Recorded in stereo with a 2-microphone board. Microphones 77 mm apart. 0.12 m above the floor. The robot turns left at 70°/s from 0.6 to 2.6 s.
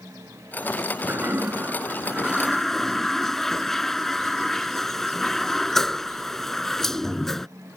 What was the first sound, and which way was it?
A toilet flushing, 25° right (ahead or behind).